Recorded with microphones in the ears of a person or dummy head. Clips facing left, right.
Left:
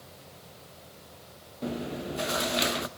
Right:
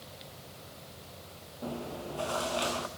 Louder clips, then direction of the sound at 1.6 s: Left 5 dB; 25° left (ahead or behind).